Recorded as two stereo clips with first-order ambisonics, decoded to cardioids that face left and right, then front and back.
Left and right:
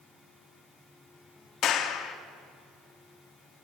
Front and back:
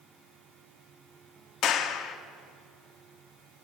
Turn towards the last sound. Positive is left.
turn(degrees=45)